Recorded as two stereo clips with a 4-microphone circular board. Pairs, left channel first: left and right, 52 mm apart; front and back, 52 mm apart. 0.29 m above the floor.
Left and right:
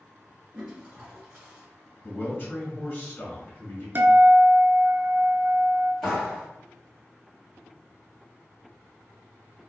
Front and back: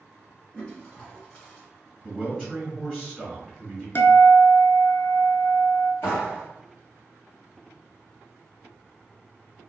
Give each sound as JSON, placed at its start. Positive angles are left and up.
{"t": 0.5, "sound": "a toilet flushing", "azimuth_deg": -45, "distance_m": 1.6}
{"t": 2.0, "sound": "a man speaking", "azimuth_deg": 75, "distance_m": 1.2}
{"t": 4.0, "sound": "a guitar", "azimuth_deg": -45, "distance_m": 0.5}
{"t": 6.0, "sound": "a clap", "azimuth_deg": 5, "distance_m": 1.5}